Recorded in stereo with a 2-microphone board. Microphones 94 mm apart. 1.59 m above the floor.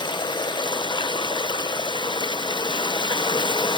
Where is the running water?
55° left (ahead or behind), 0.7 m.